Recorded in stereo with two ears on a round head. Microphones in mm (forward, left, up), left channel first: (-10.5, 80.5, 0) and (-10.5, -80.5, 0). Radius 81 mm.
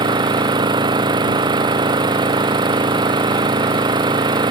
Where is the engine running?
25° right (ahead or behind).